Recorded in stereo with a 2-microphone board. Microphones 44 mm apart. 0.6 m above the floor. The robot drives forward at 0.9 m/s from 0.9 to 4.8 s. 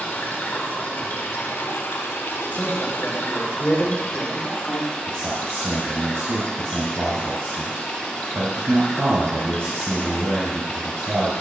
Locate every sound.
0.0 s running water: 45° left (ahead or behind), 1.9 m; by 11.4 s 30° left (ahead or behind), 3 m
2.5 s a man speaking: 30° left (ahead or behind), 2.5 m; by 4.9 s 60° left (ahead or behind), 1.4 m
5.0 s a man speaking: 75° right (ahead or behind), 3 m